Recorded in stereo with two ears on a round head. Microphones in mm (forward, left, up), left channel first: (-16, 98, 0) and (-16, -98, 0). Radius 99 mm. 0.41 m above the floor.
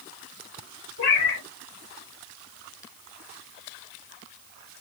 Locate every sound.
1.0 s a cat meowing: 65° left (ahead or behind), 2.5 m